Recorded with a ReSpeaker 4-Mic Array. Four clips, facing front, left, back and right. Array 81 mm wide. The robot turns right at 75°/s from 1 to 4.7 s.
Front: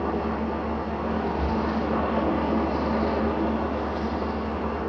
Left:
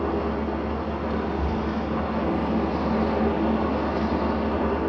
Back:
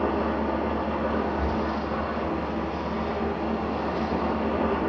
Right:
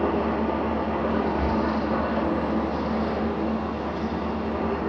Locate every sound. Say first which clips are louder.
0.0 s an engine running: right 2 dB, back 1 dB; 100° right, 4.5 m; by 4.9 s straight behind, 4.5 m
1.4 s breathing: right 3 dB, front 1 dB; 95° right, 0.9 m; by 1.7 s 70° right, 0.9 m